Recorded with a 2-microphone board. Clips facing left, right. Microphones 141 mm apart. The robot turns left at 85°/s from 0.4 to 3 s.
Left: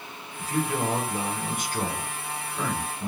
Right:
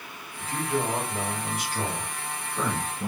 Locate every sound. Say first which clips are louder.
0.4 s a man speaking: left 1 dB; 150° left, 2 m; by 3.1 s 70° right, 2 m